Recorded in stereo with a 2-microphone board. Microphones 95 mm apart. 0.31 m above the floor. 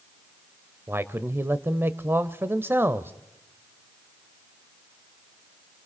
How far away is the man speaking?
About 1.0 m.